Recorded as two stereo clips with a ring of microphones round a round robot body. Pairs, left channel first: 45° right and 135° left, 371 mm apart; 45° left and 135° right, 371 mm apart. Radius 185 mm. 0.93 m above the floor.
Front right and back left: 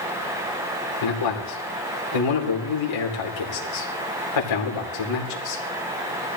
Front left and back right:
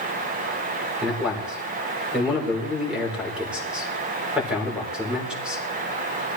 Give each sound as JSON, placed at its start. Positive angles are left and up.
{"t": 1.0, "sound": "a man speaking", "azimuth_deg": -45, "distance_m": 3.5}